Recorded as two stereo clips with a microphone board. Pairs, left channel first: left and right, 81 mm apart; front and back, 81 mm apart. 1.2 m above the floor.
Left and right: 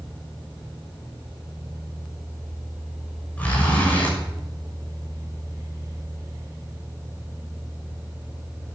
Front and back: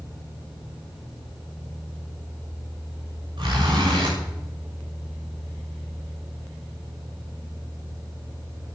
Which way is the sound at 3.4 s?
160° left.